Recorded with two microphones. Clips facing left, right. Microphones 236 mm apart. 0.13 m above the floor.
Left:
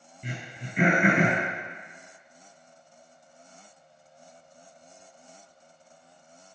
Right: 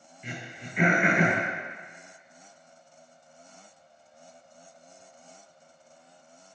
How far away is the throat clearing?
About 2 m.